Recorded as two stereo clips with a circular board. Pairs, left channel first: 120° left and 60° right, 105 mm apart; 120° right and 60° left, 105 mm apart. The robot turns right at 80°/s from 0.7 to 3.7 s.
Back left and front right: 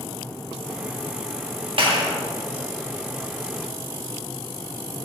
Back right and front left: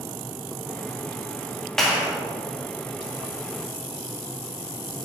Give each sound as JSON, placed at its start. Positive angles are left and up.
{"t": 1.8, "sound": "a clap", "azimuth_deg": -35, "distance_m": 1.8}